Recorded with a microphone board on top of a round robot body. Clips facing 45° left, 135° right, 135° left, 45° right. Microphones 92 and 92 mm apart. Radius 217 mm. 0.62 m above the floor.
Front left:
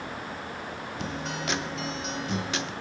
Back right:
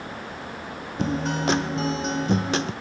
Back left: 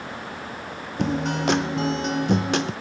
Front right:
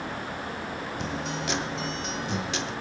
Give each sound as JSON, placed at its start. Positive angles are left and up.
{"t": 1.0, "sound": "a guitar", "azimuth_deg": 175, "distance_m": 0.5}